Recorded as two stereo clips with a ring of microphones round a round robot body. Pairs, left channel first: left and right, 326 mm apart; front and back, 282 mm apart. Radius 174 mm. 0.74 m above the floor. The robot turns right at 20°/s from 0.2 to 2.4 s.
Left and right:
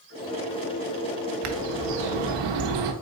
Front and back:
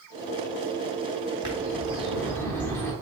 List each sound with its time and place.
1.4 s a bird: 105° right, 0.7 m; by 2.9 s 85° right, 0.7 m